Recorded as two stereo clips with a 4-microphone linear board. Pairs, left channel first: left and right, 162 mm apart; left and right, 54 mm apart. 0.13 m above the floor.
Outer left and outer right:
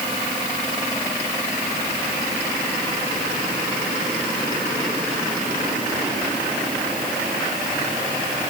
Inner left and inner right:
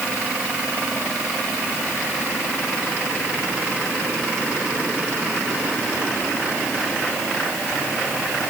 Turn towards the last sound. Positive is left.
No sound to turn to.